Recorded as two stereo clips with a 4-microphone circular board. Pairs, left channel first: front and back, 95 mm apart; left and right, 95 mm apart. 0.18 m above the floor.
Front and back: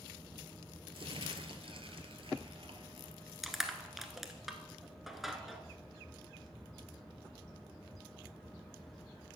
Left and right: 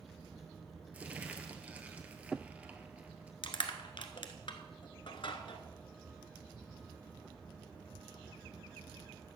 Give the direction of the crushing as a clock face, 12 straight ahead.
9 o'clock.